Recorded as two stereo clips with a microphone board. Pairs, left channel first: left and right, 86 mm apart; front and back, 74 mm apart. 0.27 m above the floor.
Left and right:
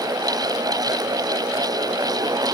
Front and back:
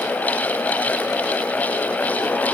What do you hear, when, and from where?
Only background noise.